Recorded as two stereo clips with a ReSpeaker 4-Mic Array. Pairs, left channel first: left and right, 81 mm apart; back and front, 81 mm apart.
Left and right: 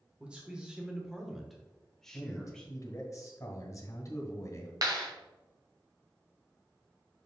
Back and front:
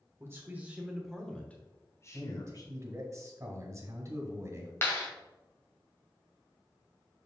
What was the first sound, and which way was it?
A man speaking, 25° right.